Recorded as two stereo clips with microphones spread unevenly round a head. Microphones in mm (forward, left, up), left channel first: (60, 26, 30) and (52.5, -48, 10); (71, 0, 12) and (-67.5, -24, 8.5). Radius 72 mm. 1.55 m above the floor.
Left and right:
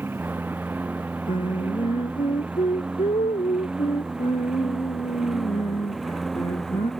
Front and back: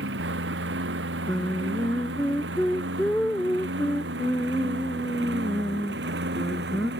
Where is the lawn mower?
175° right; by 7.0 s 170° left.